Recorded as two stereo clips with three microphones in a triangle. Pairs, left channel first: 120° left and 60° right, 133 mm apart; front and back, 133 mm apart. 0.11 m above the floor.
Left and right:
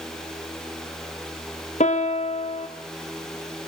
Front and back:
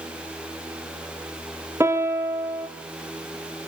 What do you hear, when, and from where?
1.8 s a piano: 110° left, 1.9 m